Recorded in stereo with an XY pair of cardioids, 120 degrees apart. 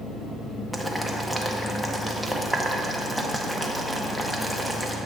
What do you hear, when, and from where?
0.7 s boiling: 5° left, 0.7 m